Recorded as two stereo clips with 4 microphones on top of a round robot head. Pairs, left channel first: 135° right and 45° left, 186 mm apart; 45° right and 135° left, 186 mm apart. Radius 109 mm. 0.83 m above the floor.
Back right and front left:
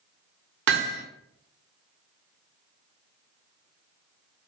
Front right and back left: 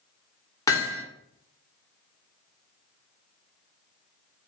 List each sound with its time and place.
0.7 s hammering: 25° left, 1.7 m